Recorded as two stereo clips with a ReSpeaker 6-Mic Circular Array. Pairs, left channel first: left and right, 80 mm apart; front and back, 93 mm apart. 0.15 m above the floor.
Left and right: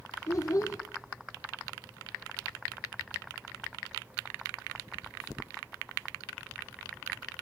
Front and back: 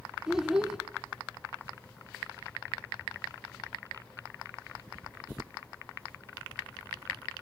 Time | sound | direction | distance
0.3 | a child speaking | 100° left | 0.8 m